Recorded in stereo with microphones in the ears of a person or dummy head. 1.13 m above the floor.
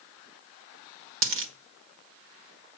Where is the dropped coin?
60° right (ahead or behind), 1.2 m.